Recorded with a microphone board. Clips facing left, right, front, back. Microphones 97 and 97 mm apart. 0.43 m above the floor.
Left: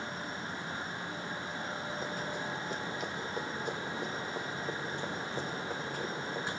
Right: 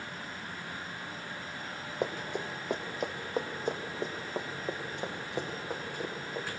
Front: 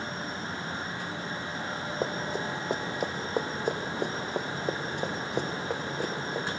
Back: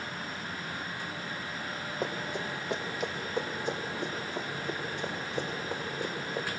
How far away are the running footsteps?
About 2 m.